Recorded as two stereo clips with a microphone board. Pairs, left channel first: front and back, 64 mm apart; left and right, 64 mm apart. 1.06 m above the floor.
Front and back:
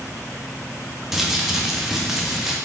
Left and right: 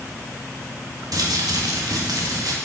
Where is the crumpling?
100° right, 1.1 m.